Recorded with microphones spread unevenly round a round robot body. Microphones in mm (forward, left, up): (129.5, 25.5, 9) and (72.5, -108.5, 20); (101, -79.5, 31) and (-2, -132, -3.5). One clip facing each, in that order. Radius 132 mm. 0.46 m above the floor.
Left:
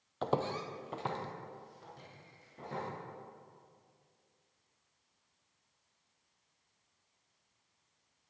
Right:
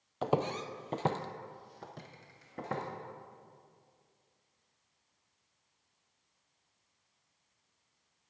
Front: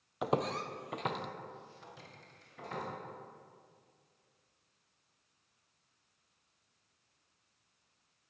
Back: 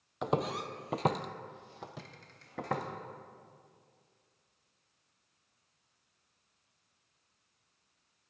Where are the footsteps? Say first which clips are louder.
Right 2 dB, back 1 dB; 40° right, 0.7 m; by 2.8 s 145° right, 1.4 m.